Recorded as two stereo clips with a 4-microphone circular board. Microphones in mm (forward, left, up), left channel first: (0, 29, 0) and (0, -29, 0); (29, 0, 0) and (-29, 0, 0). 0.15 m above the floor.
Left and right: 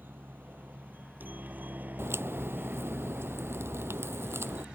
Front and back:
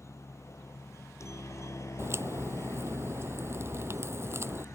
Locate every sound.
0.0 s a helicopter: 35° right; by 4.8 s 20° right
2.0 s a crack: 135° right